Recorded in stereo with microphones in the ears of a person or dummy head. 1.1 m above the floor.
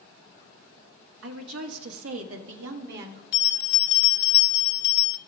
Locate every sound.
1.2 s a woman speaking: 75° right (ahead or behind), 1.0 m; by 3.2 s 60° right (ahead or behind), 1.4 m
3.3 s a bell: 70° left (ahead or behind), 0.8 m